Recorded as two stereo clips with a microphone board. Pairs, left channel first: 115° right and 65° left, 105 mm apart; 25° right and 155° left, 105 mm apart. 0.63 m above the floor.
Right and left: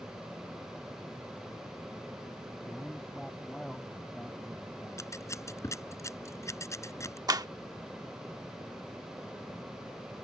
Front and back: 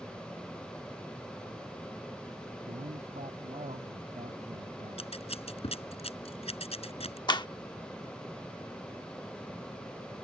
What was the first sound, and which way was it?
A man speaking, 160° left.